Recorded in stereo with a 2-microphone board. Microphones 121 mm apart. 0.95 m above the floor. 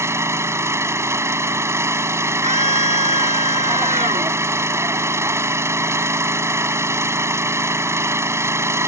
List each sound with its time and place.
0.0 s an engine running: 20° right (ahead or behind)
2.4 s a scream: 65° right (ahead or behind)